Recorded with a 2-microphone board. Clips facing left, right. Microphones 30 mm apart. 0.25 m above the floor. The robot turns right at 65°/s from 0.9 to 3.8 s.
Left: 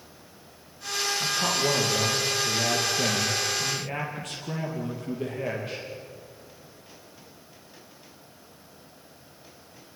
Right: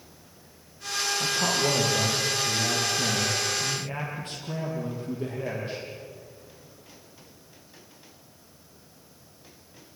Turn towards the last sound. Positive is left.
turn(degrees=95)